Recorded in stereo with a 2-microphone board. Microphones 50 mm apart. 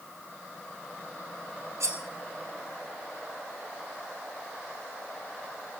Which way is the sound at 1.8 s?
75° right (ahead or behind).